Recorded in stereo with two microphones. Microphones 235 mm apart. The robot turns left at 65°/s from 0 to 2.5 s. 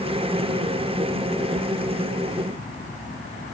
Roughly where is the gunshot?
I don't hear a gunshot.